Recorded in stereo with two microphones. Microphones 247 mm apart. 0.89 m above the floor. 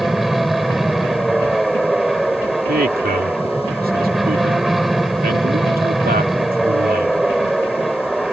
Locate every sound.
0.0 s an aircraft: centre (ahead or behind)
2.7 s a man speaking: 40° right (ahead or behind)